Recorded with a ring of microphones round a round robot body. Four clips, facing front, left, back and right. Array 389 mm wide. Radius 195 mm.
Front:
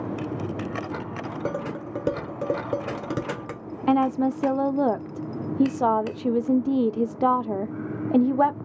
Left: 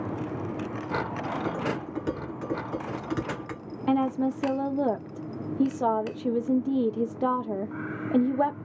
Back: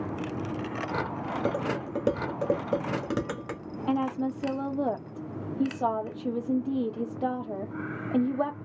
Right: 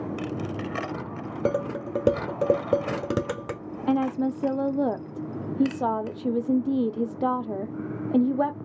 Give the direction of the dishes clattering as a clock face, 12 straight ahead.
3 o'clock.